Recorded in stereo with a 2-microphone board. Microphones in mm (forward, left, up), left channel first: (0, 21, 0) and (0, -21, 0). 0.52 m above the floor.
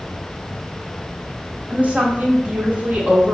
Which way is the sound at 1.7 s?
35° right (ahead or behind).